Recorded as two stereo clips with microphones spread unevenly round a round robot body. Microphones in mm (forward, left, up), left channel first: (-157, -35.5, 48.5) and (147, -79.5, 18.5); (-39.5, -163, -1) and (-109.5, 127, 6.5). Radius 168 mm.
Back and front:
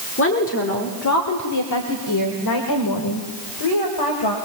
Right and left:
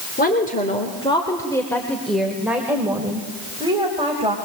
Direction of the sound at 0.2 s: 135° right.